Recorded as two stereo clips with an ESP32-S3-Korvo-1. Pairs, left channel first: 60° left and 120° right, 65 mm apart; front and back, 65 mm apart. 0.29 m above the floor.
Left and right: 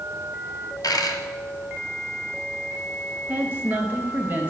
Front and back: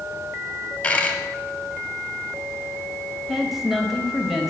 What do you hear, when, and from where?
0.8 s a dropped coin: 75° left, 1.0 m
3.3 s a woman speaking: 95° right, 1.0 m